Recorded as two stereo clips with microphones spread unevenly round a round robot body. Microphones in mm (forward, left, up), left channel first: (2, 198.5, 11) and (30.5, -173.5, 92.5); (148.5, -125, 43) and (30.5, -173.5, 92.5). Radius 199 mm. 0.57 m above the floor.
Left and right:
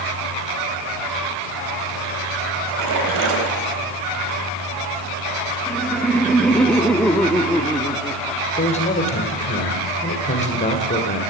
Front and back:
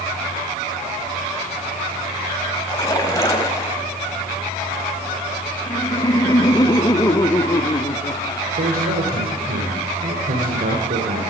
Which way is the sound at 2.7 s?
40° right.